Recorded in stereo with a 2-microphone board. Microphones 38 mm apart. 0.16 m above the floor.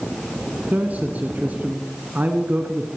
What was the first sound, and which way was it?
A man speaking, 45° right (ahead or behind).